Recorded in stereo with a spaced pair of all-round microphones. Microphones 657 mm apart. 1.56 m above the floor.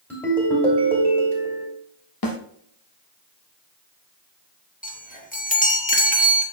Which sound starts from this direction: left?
A snare drum, at 2.2 s.